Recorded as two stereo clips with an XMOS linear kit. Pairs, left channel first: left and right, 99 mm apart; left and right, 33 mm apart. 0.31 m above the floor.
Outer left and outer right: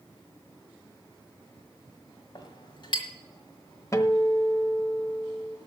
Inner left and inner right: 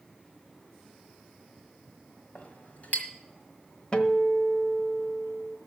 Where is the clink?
55° left (ahead or behind), 1.6 m.